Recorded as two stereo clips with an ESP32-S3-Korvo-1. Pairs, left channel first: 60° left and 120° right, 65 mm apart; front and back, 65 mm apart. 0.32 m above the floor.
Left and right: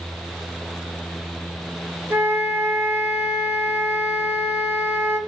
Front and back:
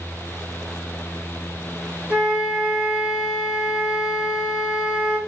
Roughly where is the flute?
Behind right.